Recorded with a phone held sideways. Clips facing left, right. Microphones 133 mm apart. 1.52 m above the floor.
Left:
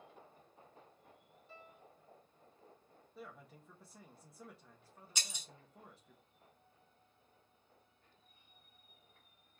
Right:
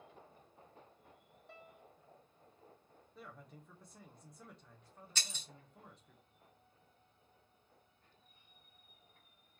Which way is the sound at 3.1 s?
5° left (ahead or behind).